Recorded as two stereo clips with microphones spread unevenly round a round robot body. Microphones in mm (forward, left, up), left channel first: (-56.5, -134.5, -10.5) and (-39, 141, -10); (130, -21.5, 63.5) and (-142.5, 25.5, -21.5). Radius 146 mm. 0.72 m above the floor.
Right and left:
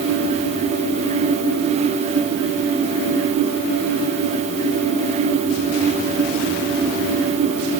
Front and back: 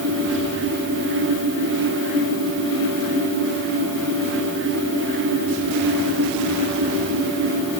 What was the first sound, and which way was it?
Only background noise.